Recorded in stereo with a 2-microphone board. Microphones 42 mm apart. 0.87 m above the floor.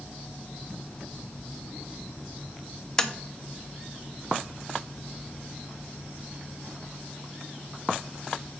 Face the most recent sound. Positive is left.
turn(degrees=20)  # may be behind; listen again after turning